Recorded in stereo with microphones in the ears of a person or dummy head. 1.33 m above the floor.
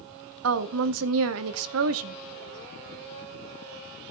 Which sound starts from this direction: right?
A woman speaking, at 0.4 s.